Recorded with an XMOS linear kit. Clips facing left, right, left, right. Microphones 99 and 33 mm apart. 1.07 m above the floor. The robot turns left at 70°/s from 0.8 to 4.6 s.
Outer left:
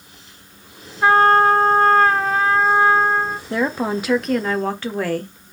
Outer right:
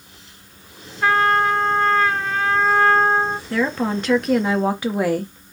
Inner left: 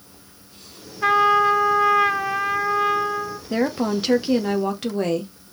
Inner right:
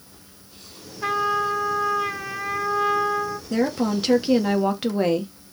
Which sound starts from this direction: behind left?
A trumpet, at 1.0 s.